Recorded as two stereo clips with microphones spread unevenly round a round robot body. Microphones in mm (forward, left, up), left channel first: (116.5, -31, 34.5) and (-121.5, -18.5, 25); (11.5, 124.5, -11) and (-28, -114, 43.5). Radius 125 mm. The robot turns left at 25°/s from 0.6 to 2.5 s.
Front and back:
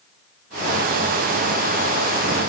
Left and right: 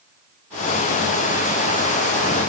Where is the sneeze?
No sneeze in this recording.